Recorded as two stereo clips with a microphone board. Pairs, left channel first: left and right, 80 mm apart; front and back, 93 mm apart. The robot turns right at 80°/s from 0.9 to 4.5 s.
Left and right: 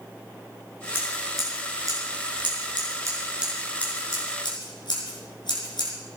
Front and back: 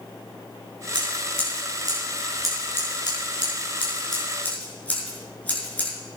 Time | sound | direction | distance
0.9 | scissors | 150° left | 5.5 m